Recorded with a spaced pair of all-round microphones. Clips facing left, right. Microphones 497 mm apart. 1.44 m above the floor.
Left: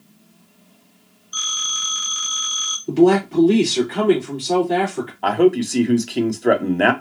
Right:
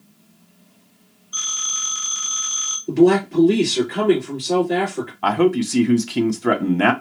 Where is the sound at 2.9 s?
5° left (ahead or behind), 3.5 m.